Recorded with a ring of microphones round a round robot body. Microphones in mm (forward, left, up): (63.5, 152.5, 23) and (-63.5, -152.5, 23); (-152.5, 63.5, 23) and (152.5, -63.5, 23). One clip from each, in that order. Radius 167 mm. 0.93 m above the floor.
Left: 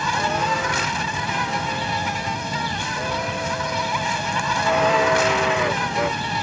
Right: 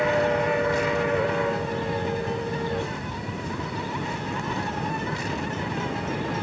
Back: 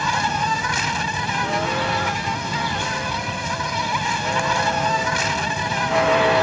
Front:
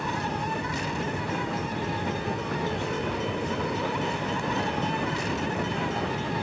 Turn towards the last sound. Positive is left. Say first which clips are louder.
# left 1 dB, back 9 dB
turn(degrees=110)